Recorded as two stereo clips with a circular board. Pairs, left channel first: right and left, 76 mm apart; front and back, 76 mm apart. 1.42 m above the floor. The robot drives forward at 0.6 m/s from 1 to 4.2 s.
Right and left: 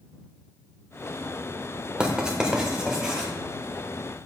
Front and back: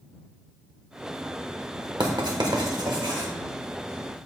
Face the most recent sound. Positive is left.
turn(degrees=175)